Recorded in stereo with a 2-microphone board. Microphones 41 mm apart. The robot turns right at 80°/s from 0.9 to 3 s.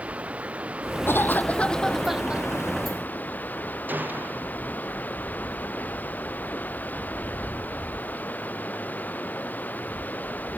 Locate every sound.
0.0 s running water: 35° right; by 10.6 s 135° left
1.1 s a cough: 105° left; by 2.4 s 145° right
3.9 s a gunshot: 50° right (ahead or behind)